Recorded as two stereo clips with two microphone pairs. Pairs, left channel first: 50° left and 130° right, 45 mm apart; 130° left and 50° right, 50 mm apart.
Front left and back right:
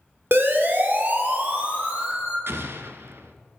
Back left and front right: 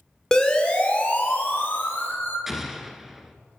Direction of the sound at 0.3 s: 150° right.